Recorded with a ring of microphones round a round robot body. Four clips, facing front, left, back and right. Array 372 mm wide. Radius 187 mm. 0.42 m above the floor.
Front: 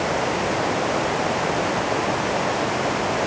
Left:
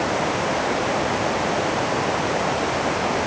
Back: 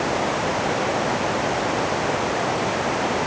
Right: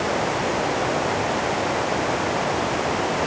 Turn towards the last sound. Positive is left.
No sound to turn to.